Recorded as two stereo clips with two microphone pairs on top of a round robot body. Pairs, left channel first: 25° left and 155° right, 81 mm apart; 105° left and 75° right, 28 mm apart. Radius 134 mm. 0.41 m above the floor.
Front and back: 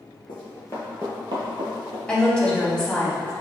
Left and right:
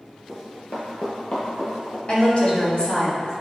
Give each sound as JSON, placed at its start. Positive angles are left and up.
{"t": 0.3, "sound": "running footsteps", "azimuth_deg": 45, "distance_m": 0.8}
{"t": 2.1, "sound": "a woman speaking", "azimuth_deg": 105, "distance_m": 1.7}